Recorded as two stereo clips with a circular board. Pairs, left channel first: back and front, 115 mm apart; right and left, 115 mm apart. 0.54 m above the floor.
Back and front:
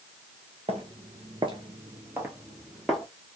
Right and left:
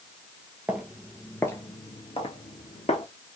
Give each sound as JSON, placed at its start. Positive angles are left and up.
{"t": 0.7, "sound": "footsteps", "azimuth_deg": 15, "distance_m": 0.9}